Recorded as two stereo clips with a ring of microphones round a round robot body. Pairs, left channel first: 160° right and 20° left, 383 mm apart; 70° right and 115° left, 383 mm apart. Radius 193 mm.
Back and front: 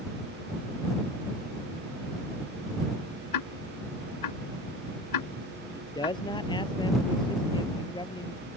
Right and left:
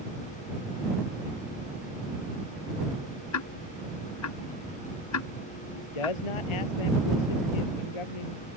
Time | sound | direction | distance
3.3 | ticking | 120° right | ?
5.8 | a man speaking | 80° right | ?